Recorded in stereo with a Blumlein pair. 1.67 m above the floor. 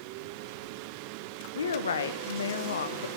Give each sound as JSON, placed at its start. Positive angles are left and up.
{"t": 1.6, "sound": "a woman speaking", "azimuth_deg": 70, "distance_m": 1.1}